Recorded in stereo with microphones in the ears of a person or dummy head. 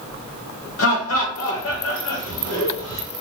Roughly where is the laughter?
Left.